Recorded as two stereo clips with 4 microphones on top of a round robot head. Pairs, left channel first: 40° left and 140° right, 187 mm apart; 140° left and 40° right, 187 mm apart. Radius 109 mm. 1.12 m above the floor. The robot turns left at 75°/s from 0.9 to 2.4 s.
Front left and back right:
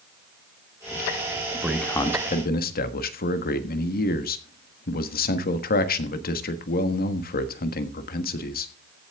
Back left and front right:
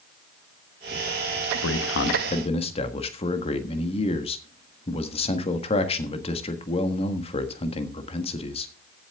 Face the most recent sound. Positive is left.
turn(degrees=80)